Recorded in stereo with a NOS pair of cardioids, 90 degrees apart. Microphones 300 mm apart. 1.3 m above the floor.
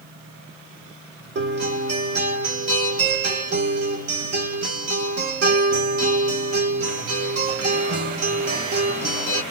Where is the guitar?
55° right, 1.6 m.